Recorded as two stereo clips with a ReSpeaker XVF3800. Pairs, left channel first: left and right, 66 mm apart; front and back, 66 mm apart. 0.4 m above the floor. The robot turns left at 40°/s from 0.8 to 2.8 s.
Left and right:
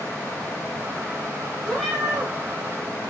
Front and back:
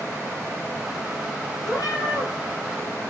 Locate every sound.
1.6 s a cat meowing: 5° left, 4 m; by 2.3 s 20° right, 4 m